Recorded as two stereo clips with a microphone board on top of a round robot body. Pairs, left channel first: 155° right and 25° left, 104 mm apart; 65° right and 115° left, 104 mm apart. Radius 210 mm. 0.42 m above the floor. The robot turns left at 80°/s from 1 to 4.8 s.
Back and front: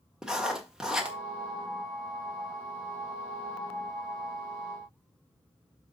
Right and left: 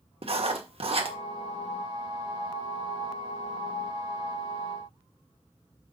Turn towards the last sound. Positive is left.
turn(degrees=160)